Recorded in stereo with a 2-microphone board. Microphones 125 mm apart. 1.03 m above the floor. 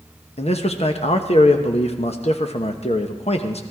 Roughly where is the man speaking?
Left.